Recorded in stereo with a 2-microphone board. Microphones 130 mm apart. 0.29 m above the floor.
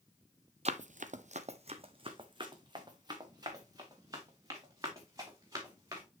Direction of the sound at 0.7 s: 55° right (ahead or behind).